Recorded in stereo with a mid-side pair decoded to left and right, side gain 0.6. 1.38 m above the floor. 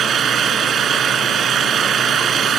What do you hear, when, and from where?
0.0 s an engine running: 40° right